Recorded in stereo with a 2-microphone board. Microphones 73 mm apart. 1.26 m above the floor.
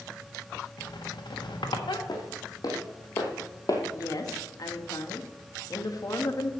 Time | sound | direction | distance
0.8 | a squeak | 75° left (ahead or behind) | 1.2 m
2.1 | footsteps | 55° left (ahead or behind) | 3 m
3.9 | a woman speaking | 50° left (ahead or behind) | 1.5 m